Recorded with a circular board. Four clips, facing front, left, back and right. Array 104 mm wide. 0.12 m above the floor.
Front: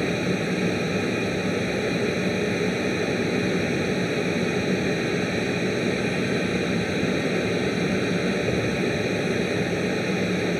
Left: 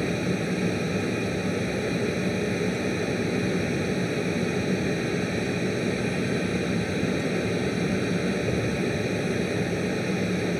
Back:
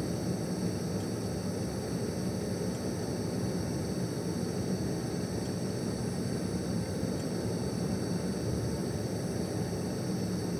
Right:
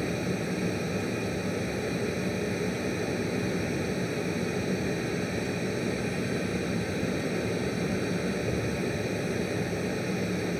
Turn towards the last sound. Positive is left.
turn(degrees=15)